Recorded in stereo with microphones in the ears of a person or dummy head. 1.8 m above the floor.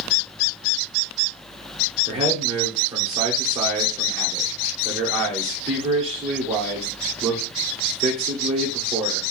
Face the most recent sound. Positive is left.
turn(degrees=-30)  # may be behind; listen again after turning